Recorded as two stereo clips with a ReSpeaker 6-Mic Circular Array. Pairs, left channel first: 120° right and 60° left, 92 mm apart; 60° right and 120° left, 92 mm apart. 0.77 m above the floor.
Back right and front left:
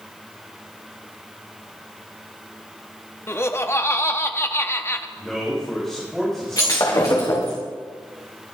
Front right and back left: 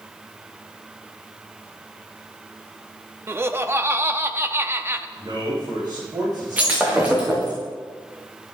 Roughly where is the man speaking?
Behind left.